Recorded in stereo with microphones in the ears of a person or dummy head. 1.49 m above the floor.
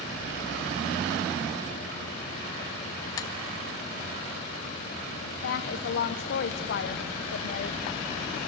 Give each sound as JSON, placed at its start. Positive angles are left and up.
{"t": 3.2, "sound": "tapping", "side_deg": 20, "distance_m": 0.7}
{"t": 5.4, "sound": "a woman speaking", "side_deg": 55, "distance_m": 0.9}